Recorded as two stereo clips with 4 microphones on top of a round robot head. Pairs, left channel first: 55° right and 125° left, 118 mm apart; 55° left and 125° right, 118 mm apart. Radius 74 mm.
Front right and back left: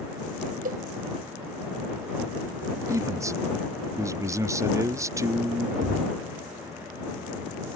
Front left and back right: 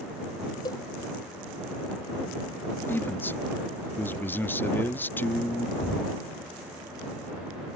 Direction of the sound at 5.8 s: 105° left.